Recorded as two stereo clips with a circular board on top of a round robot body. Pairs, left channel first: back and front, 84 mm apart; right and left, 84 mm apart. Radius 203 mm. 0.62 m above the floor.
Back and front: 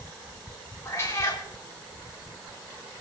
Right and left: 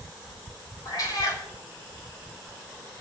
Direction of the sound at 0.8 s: 125° right.